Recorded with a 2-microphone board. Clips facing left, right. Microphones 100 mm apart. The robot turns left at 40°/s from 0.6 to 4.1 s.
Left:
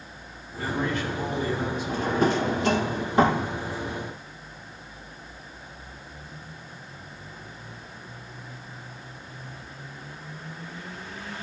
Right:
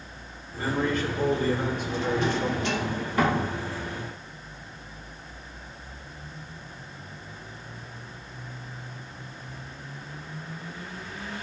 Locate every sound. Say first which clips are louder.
0.6 s a man speaking: right 1 dB; 35° right, 1.7 m; by 2.9 s 125° right, 1.7 m
1.9 s a drawer: left 4 dB; 45° left (ahead or behind), 0.5 m; by 3.5 s 20° left (ahead or behind), 0.5 m